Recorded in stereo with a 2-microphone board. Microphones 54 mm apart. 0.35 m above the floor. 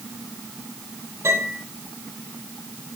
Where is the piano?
55° right (ahead or behind), 9 m.